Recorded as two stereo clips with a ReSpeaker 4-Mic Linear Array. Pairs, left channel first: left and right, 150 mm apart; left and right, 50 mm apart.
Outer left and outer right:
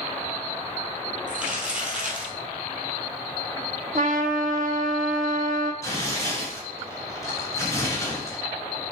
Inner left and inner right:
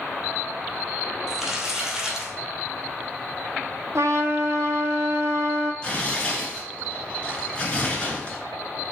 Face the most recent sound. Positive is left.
turn(degrees=20)  # may be behind; listen again after turning